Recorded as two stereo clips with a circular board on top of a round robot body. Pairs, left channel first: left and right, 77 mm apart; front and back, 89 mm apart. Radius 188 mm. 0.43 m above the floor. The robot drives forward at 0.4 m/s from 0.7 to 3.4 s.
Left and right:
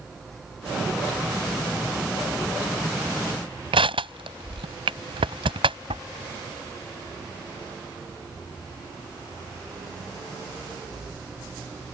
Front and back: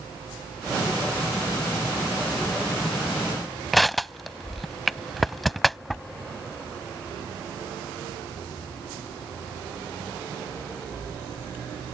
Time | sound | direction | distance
3.7 | crushing | 90° right | ?